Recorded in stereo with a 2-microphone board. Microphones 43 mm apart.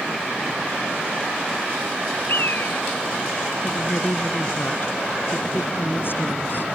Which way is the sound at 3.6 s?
55° left (ahead or behind).